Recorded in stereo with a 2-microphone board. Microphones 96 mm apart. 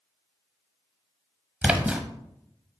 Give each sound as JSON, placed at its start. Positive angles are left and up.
{"t": 1.6, "sound": "a splash", "side_deg": -10, "distance_m": 0.9}